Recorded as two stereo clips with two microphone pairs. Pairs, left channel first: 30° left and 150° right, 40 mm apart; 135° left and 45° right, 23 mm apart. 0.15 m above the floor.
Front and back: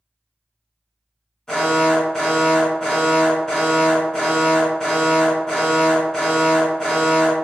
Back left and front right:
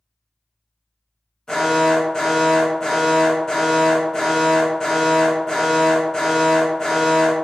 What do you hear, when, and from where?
1.5 s an alarm: 100° left, 1.7 m